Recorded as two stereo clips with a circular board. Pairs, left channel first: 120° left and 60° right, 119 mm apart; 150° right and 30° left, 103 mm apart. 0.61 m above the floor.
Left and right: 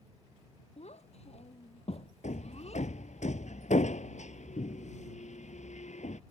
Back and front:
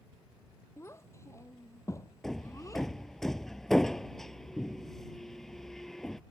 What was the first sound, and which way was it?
A child speaking, 145° left.